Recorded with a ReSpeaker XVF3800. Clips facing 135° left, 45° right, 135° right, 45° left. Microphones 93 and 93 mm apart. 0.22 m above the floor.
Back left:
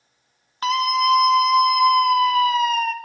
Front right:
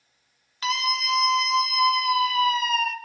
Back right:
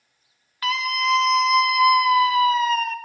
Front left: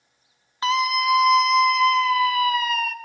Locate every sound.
0.6 s a scream: 105° left, 2 m; by 2.9 s 175° left, 2.5 m